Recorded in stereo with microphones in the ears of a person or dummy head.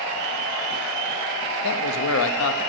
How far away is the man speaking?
About 1.0 m.